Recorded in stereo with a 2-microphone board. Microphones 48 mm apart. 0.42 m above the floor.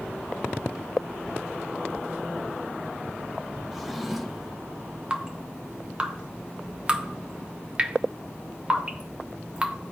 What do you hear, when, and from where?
3.7 s a drawer: 5° right (ahead or behind), 0.8 m
5.1 s dripping: 25° right (ahead or behind), 0.6 m